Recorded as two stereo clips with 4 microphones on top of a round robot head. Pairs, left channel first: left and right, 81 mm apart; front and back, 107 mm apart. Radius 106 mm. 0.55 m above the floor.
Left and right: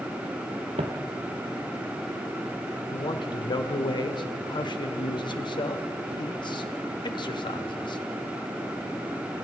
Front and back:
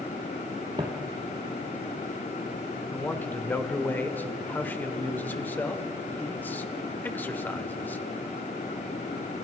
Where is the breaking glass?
No breaking glass in this recording.